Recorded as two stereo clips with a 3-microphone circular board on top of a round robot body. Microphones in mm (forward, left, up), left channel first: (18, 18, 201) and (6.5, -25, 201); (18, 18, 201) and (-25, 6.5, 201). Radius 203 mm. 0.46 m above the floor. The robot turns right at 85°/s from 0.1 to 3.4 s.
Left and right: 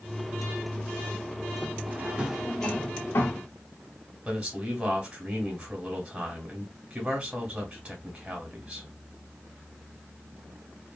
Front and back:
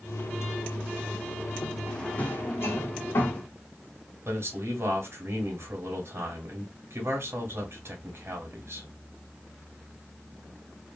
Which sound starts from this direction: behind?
A man speaking, at 4.2 s.